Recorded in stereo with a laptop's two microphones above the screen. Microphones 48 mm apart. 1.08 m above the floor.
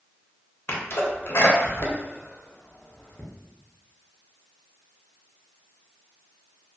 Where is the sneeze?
65° left (ahead or behind), 0.8 m.